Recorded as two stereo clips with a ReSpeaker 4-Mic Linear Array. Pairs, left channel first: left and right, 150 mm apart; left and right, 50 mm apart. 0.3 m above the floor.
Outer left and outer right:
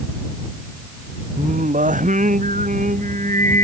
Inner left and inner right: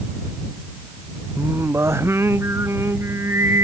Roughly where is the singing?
Right.